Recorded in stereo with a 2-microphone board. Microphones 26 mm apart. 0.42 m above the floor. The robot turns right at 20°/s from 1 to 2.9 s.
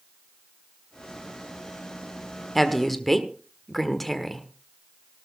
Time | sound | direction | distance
2.5 | a woman speaking | 5° left (ahead or behind) | 1.3 m